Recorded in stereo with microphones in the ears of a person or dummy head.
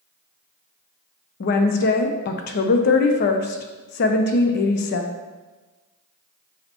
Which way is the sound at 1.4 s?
50° left (ahead or behind).